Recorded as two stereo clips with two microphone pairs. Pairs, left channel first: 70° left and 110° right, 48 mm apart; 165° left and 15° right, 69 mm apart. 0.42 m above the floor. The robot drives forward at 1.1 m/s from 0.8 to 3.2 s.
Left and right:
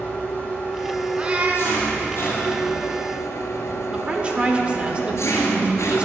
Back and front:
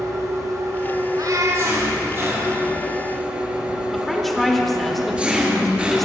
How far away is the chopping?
No chopping in this recording.